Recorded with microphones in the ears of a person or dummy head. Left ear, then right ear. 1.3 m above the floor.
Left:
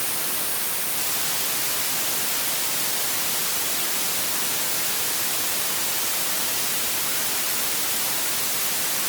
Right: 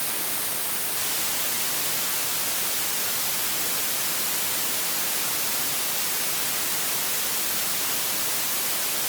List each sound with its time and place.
Only background noise.